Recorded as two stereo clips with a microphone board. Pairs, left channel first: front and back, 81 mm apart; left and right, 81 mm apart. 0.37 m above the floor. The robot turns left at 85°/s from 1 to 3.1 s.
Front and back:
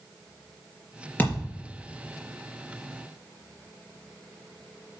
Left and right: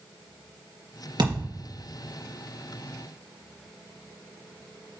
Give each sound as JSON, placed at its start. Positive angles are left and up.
{"t": 1.2, "sound": "a thud", "azimuth_deg": -65, "distance_m": 3.5}